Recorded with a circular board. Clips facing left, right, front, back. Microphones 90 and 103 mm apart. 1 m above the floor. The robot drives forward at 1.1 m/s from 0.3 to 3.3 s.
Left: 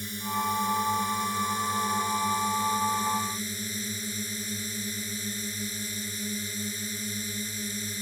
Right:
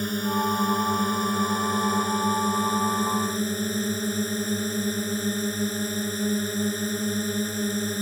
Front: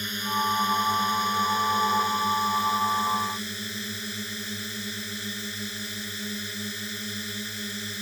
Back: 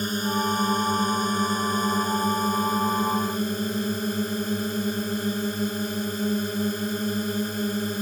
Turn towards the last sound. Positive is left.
turn(degrees=-130)